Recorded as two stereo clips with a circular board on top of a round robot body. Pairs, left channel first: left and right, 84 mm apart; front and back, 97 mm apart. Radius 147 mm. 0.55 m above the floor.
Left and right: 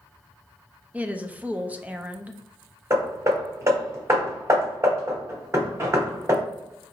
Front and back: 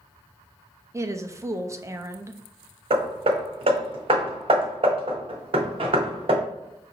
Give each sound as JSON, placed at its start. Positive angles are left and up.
{"t": 0.9, "sound": "a woman speaking", "azimuth_deg": -150, "distance_m": 0.7}
{"t": 2.9, "sound": "hammering", "azimuth_deg": -150, "distance_m": 0.7}